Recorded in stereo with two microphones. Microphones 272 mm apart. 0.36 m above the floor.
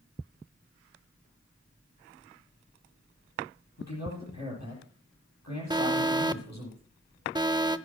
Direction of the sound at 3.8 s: 75° left (ahead or behind).